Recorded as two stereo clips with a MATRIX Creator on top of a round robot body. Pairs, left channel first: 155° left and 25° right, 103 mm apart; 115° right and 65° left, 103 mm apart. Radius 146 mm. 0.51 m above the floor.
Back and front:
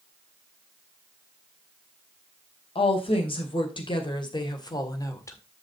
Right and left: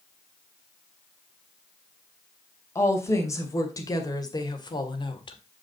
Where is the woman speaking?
175° right, 3 m; by 5.4 s 145° right, 1.9 m.